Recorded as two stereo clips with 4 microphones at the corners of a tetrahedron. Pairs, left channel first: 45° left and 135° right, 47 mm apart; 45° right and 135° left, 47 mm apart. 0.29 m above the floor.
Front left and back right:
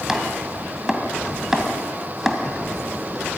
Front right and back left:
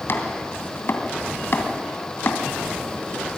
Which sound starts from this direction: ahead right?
Chopping, at 0.1 s.